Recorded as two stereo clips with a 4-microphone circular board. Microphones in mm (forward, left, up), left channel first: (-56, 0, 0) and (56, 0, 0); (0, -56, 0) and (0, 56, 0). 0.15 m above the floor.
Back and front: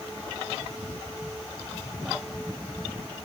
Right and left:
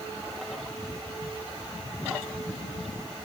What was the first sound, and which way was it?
Only background noise.